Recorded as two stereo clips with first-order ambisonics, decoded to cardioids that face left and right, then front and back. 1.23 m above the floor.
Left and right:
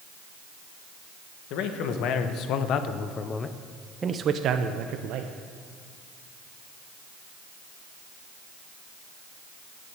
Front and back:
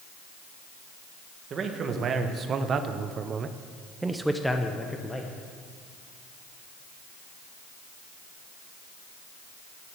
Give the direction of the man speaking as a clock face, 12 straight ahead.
8 o'clock.